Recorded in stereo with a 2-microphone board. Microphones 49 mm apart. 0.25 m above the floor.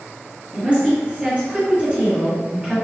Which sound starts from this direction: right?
A woman speaking, at 0.5 s.